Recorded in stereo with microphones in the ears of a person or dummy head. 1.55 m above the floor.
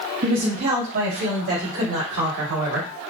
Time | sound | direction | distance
0.2 | a woman speaking | 50° right (ahead or behind) | 1.9 m